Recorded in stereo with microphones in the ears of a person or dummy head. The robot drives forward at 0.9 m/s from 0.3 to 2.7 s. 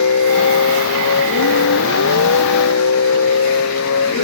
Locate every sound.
0.0 s a vehicle: 85° left; by 4.2 s 80° left